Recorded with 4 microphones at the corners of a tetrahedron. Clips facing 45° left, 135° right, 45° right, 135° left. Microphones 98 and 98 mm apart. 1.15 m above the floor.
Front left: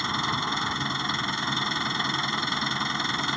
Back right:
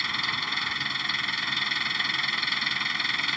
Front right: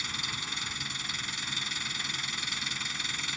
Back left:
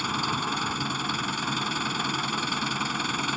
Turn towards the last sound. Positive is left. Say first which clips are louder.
# front left 5 dB, back left 12 dB
turn(degrees=105)